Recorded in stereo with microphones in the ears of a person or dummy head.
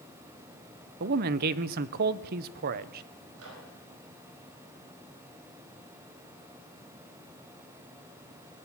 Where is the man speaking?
50° right (ahead or behind), 0.6 m.